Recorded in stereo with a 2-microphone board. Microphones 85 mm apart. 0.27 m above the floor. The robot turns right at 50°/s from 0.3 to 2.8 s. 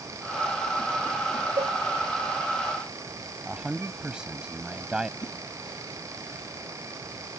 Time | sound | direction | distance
1.6 | a cowbell | 60° right (ahead or behind) | ?
3.5 | a man speaking | 10° right (ahead or behind) | ?
5.2 | a whoosh | 55° left (ahead or behind) | ?